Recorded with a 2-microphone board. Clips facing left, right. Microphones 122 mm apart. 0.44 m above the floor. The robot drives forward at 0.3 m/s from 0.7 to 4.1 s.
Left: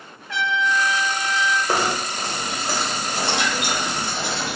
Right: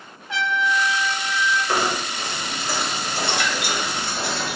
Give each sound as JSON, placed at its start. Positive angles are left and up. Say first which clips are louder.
{"t": 0.3, "sound": "a trumpet", "louder": "even", "side_deg": -20, "distance_m": 1.3}
{"t": 1.7, "sound": "knocking", "louder": "left 1 dB", "side_deg": 35, "distance_m": 0.8}